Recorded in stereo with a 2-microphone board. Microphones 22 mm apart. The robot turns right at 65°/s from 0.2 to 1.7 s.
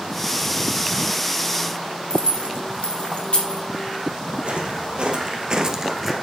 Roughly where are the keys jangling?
Left.